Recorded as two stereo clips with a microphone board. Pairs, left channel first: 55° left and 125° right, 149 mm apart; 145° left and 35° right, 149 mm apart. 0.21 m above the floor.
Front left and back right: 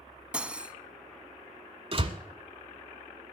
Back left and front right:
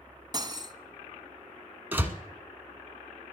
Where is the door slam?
105° right, 1.2 m.